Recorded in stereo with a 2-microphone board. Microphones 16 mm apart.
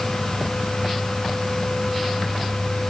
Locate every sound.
Only background noise.